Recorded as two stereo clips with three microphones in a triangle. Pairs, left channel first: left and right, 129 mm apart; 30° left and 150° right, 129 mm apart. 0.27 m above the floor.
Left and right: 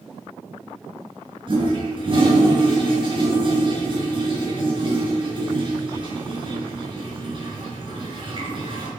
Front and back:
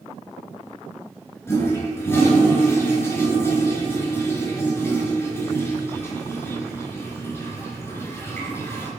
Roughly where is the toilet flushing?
Ahead right.